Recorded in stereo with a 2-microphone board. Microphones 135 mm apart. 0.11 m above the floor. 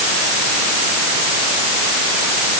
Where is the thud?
No thud in this recording.